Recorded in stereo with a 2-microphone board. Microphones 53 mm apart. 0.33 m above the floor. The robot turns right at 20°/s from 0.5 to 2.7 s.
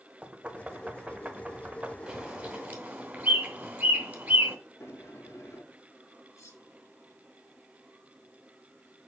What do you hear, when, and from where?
0.2 s knocking: 25° right (ahead or behind), 0.8 m
2.1 s a bird: 15° right (ahead or behind), 2.5 m; by 4.5 s 25° right (ahead or behind), 2.5 m
4.8 s a sliding door: 55° left (ahead or behind), 3.5 m
6.4 s cutlery clinking: 75° left (ahead or behind), 3 m